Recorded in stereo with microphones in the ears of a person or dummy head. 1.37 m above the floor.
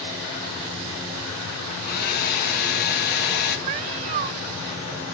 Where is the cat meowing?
40° right (ahead or behind), 0.7 m.